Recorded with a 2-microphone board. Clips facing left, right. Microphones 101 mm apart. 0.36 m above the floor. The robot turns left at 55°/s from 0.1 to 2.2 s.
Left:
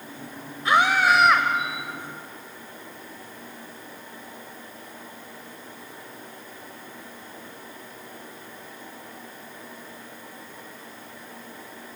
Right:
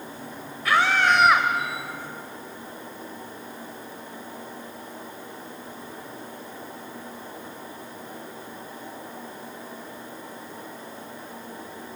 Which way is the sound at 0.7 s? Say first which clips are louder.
Left 1 dB; 35° left.